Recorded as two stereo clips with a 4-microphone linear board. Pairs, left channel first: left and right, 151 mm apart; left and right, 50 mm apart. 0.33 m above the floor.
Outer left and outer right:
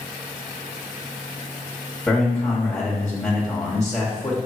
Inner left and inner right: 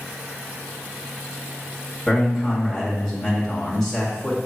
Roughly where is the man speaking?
Centre.